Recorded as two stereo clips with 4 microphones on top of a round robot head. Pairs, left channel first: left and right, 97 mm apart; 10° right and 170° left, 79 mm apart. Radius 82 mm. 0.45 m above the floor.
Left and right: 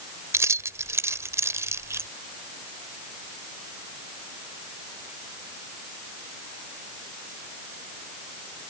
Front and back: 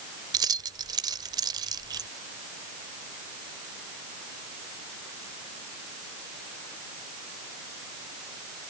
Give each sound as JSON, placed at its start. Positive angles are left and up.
{"t": 0.3, "sound": "keys jangling", "azimuth_deg": -155}